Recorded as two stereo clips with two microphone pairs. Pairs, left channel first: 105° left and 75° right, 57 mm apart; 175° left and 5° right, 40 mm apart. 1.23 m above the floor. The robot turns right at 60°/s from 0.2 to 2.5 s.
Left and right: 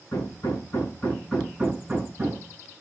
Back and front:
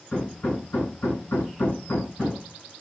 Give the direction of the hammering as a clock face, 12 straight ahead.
8 o'clock.